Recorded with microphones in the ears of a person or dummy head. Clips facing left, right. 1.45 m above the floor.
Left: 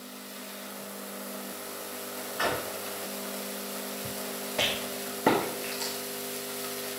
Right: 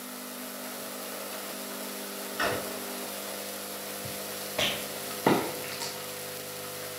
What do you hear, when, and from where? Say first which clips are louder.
2.4 s a drawer: left 1 dB; 15° right (ahead or behind), 5 m
4.6 s a rattle: even; 5° left (ahead or behind), 1.7 m